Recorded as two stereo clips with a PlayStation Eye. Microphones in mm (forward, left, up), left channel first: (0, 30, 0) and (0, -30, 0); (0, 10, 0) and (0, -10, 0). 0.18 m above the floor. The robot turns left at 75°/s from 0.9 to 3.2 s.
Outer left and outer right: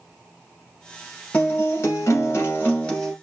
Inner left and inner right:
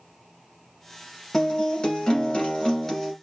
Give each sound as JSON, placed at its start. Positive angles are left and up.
{"t": 1.3, "sound": "a guitar", "azimuth_deg": 140, "distance_m": 1.0}